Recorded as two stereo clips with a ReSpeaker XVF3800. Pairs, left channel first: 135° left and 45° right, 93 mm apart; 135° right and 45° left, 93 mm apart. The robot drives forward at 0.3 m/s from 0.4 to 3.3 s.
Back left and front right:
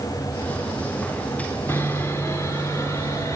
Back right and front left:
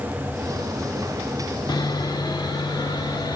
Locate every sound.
1.7 s sawing: 165° right, 1.0 m; by 3.4 s 170° right, 1.5 m